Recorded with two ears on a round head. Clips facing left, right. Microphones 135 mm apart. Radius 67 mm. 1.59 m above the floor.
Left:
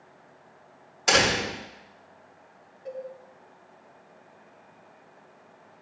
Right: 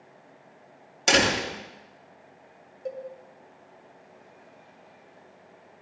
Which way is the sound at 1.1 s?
30° right (ahead or behind).